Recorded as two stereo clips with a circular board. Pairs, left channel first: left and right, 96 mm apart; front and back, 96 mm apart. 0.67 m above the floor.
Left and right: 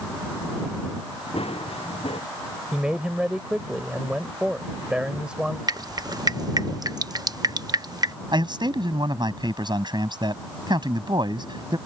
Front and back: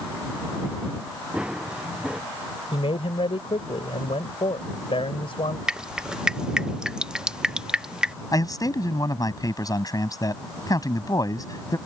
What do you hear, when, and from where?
1.3 s running footsteps: 100° left
2.7 s a man speaking: 10° right
5.7 s dripping: 100° right
8.3 s a man speaking: 50° right